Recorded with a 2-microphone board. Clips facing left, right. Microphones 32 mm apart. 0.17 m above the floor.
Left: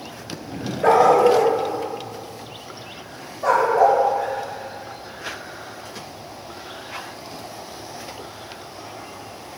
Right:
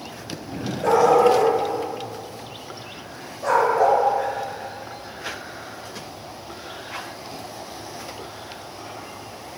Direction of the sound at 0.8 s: 40° left (ahead or behind).